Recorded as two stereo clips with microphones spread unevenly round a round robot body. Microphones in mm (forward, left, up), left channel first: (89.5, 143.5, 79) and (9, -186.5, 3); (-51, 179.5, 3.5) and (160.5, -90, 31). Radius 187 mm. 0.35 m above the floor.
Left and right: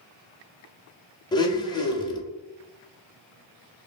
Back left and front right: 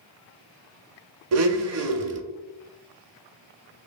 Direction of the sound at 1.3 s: 5° right.